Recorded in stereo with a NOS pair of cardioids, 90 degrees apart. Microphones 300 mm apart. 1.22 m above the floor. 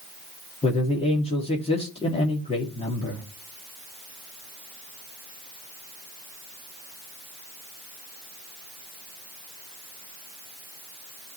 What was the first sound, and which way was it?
A man speaking, 20° left.